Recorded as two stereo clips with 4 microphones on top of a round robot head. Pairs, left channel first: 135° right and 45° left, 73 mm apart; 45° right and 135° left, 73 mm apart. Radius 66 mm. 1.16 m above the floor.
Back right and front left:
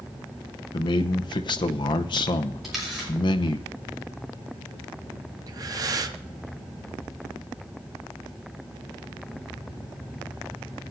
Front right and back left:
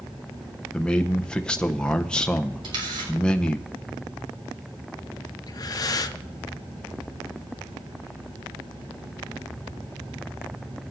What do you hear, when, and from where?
0.7 s a man speaking: 120° right, 0.7 m
2.6 s a camera shutter: 130° left, 5.5 m
5.5 s breathing: straight ahead, 0.8 m